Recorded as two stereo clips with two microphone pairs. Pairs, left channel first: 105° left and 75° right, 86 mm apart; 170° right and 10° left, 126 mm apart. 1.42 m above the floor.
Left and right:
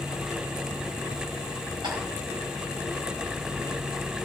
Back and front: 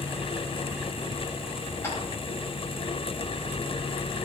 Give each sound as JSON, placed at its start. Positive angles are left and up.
{"t": 1.8, "sound": "tapping", "azimuth_deg": -95, "distance_m": 5.0}